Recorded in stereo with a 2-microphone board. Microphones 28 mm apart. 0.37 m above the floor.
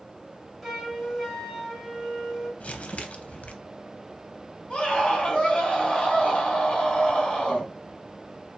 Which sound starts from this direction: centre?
A flute, at 0.6 s.